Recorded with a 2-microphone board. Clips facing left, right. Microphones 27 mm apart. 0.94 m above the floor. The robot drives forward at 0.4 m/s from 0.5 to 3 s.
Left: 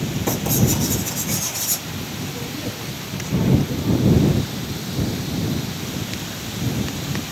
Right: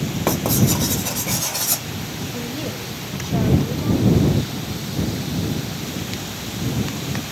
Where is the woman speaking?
45° right (ahead or behind), 1.2 m; by 4.2 s 35° right (ahead or behind), 1.4 m.